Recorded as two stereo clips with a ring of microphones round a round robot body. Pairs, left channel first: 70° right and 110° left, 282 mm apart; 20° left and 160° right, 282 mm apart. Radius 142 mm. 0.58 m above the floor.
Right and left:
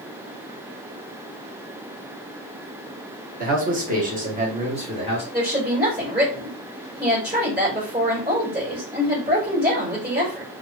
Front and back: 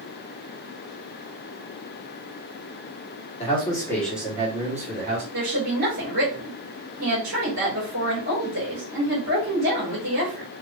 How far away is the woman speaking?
About 2.0 m.